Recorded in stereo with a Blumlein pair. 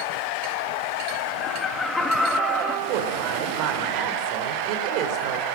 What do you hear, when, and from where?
1.4 s laughter: 25° left, 2 m; by 2.8 s straight ahead, 2 m
2.9 s a woman speaking: 40° right, 4 m